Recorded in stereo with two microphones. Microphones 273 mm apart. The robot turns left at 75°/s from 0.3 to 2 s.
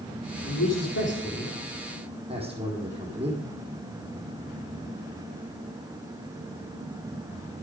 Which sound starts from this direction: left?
A man speaking, at 0.4 s.